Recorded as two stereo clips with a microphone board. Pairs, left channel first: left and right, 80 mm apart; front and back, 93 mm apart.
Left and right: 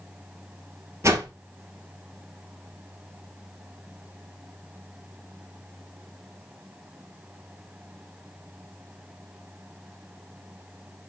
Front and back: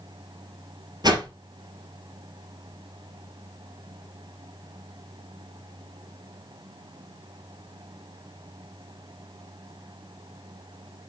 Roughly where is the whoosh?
Behind right.